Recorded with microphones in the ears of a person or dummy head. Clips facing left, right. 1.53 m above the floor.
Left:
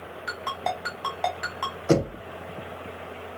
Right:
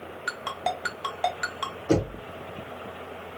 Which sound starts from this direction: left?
Knocking, at 1.9 s.